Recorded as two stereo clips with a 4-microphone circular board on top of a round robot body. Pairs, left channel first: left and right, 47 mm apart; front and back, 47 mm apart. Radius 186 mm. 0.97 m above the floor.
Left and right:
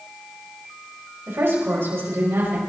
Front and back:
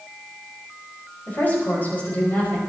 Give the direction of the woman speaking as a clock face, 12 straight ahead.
2 o'clock.